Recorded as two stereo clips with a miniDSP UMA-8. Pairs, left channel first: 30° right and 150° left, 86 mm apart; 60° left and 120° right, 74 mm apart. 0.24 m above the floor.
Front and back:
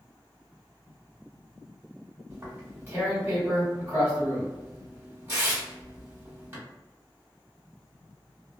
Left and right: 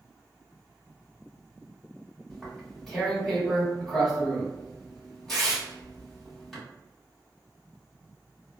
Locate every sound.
2.3 s tearing paper: 140° left, 1.7 m